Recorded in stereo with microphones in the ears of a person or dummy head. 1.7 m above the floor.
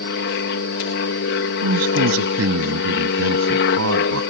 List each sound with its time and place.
0.0 s an aircraft: 60° left (ahead or behind)
1.6 s a man speaking: 85° right